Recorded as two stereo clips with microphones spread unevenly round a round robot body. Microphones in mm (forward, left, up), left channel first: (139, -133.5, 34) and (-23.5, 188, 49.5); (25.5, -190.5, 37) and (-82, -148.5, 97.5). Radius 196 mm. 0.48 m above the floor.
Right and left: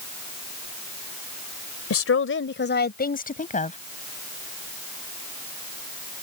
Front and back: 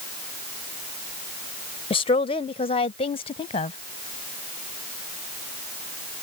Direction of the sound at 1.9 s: 15° right.